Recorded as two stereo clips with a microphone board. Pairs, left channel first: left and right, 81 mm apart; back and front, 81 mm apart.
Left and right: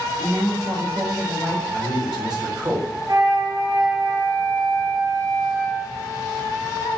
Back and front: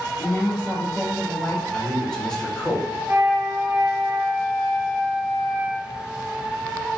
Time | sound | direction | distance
0.2 | a woman speaking | 140° right | 0.9 m
1.7 | a man speaking | 100° right | 0.8 m
3.1 | a flute | 60° right | 0.8 m